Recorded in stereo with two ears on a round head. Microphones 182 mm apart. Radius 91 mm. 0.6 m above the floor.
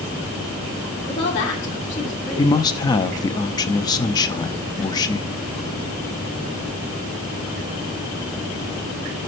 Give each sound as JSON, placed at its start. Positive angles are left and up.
{"t": 1.1, "sound": "a woman speaking", "side_deg": 35, "distance_m": 1.4}
{"t": 2.4, "sound": "a man speaking", "side_deg": 20, "distance_m": 0.6}